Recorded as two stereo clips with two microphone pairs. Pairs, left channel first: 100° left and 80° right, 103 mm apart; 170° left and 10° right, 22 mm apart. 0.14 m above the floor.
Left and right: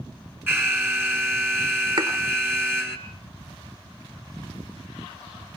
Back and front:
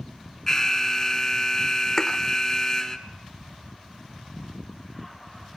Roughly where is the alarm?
Behind right.